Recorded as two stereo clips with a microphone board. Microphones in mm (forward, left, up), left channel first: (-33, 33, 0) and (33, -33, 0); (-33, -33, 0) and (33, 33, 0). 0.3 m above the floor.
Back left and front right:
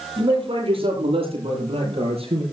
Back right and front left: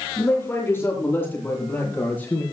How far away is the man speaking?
About 8.5 m.